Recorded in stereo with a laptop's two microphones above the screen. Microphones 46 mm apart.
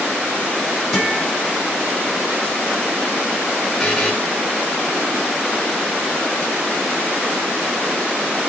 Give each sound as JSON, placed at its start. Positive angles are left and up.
{"t": 0.9, "sound": "a guitar", "side_deg": 0, "distance_m": 7.0}
{"t": 3.8, "sound": "a buzzer", "side_deg": 5, "distance_m": 3.0}